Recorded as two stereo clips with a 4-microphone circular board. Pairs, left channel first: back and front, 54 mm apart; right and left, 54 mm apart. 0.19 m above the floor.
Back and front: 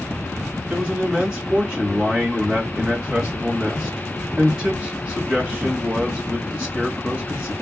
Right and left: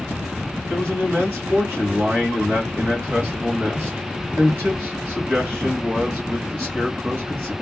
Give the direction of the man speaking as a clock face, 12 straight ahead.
9 o'clock.